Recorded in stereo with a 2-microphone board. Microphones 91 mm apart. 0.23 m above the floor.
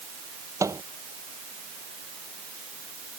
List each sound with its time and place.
0.6 s a microwave: 35° right (ahead or behind)